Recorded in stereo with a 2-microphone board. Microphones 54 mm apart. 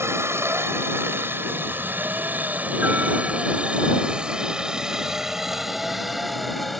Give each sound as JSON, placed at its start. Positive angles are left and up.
{"t": 0.0, "sound": "a helicopter", "side_deg": -50}